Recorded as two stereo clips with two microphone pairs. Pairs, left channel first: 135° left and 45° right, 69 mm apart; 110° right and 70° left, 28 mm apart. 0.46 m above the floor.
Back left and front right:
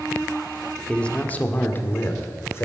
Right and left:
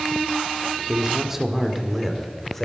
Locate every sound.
0.9 s a man speaking: 80° left, 1.4 m; by 2.6 s 175° left, 2 m